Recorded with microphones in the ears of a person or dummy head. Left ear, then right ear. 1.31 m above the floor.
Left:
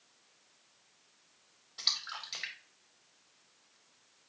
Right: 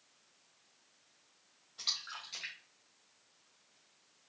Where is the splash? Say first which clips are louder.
Left 4 dB; 25° left (ahead or behind), 1.8 m.